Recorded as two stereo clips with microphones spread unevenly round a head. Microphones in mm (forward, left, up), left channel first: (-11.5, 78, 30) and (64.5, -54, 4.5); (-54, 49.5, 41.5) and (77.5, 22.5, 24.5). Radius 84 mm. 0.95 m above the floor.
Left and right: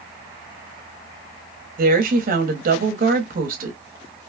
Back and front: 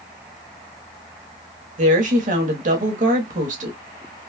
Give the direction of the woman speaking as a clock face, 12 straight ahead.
1 o'clock.